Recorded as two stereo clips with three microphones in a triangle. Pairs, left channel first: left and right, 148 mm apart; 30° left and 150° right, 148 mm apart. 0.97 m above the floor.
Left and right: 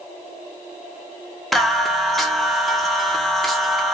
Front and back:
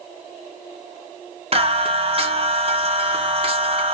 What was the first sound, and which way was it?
Singing, straight behind.